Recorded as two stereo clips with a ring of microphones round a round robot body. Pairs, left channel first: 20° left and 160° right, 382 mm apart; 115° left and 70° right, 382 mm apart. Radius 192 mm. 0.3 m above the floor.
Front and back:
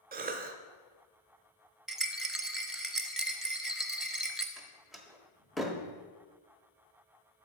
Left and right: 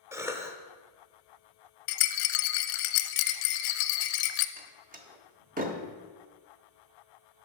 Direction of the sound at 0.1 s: 140° right.